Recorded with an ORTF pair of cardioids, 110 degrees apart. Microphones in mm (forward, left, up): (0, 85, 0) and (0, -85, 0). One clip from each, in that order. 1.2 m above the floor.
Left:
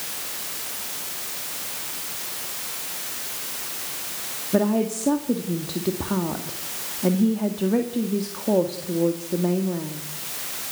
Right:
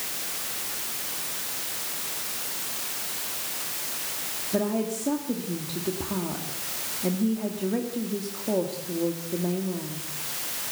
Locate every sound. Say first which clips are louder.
4.5 s a woman speaking: left 5 dB; 30° left, 1.9 m